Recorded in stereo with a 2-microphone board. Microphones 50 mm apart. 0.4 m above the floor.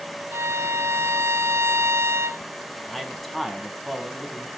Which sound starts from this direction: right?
A violin, at 0.3 s.